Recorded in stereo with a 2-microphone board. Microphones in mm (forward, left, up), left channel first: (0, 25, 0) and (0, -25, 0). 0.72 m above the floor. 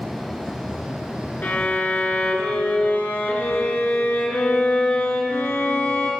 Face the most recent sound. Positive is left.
turn(degrees=35)  # may be behind; listen again after turning